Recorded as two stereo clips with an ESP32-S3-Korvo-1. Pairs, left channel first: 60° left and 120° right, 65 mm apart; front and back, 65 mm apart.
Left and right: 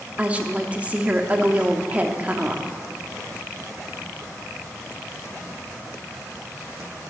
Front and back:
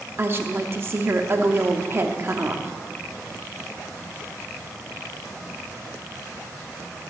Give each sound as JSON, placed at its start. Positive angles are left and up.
{"t": 0.2, "sound": "a woman speaking", "azimuth_deg": -175, "distance_m": 0.9}